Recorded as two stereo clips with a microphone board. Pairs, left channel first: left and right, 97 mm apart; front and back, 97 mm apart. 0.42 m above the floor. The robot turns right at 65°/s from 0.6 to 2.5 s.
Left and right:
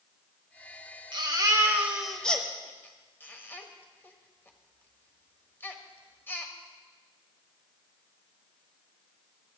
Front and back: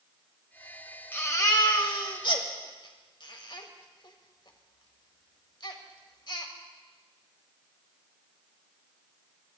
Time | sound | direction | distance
1.1 | a baby crying | 65° right | 1.6 m